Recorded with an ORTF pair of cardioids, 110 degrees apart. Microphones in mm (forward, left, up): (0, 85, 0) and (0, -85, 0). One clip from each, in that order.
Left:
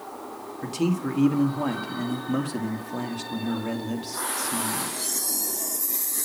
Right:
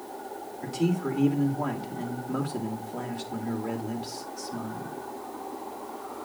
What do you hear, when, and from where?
0.6 s a man speaking: 40° left, 2 m